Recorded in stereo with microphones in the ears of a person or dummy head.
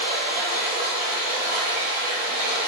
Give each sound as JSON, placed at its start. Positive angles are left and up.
{"t": 0.0, "sound": "running water", "side_deg": -45, "distance_m": 1.2}